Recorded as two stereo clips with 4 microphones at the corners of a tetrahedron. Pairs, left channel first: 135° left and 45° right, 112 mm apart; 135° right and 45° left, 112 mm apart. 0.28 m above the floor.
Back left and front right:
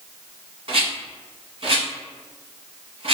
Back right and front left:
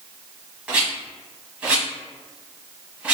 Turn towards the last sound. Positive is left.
turn(degrees=-35)